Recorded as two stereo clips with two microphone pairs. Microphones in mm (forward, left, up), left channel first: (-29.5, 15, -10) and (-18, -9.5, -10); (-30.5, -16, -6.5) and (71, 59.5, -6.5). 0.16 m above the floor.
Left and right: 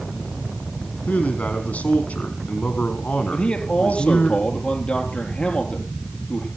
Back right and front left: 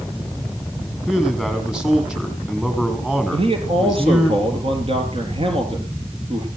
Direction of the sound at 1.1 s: 120° left.